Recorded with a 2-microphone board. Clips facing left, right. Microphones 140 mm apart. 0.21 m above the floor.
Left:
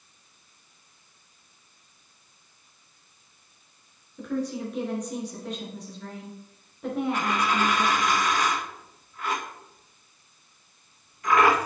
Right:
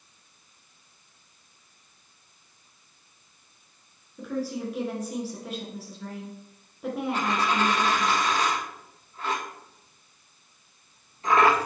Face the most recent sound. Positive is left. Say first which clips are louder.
# even
turn(degrees=-30)  # may be behind; listen again after turning